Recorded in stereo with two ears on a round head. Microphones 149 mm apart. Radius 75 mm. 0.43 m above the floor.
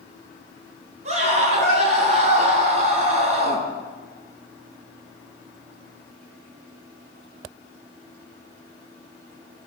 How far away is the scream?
About 5.5 m.